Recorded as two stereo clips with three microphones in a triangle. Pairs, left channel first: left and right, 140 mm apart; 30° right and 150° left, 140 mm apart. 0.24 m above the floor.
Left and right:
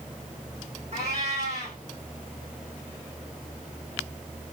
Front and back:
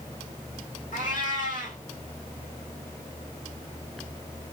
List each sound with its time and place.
0.9 s a cat meowing: 50° right, 2 m